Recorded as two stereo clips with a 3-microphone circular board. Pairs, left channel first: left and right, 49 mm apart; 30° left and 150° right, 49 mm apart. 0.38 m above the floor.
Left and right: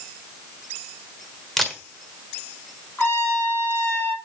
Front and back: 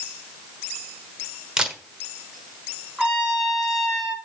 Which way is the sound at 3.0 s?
130° left.